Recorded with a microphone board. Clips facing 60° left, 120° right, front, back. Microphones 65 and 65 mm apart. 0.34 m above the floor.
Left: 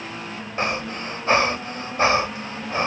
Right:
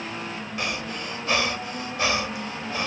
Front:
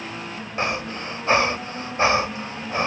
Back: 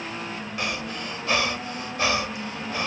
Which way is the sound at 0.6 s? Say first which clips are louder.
Left 6 dB, front 6 dB; 35° left.